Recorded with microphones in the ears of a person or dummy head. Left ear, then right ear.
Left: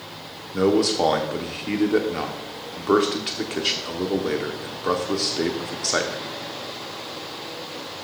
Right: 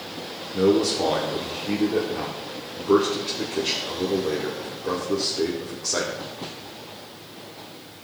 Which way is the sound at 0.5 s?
45° left (ahead or behind).